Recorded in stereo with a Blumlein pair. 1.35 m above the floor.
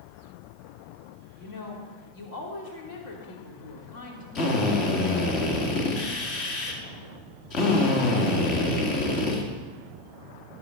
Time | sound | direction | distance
1.4 | a woman speaking | 50° left | 3 m
4.3 | a drill | 35° left | 2 m